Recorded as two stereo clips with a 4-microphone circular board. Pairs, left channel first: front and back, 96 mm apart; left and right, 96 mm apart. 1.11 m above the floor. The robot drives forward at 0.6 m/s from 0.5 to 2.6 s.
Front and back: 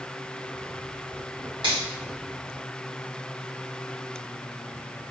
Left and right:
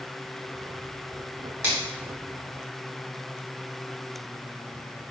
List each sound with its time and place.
1.6 s a finger snap: 155° right, 1.3 m